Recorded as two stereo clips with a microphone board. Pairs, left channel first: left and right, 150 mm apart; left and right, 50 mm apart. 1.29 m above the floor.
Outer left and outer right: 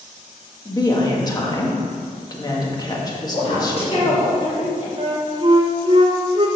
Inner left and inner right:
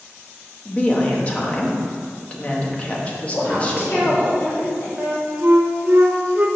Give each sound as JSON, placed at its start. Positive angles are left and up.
{"t": 0.7, "sound": "a woman speaking", "side_deg": 25, "distance_m": 1.8}
{"t": 3.3, "sound": "a woman speaking", "side_deg": 45, "distance_m": 3.5}
{"t": 5.0, "sound": "a flute", "side_deg": -35, "distance_m": 1.1}